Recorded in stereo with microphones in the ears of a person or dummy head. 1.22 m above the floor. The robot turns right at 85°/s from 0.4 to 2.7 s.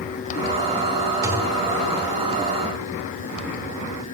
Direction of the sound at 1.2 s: 25° right.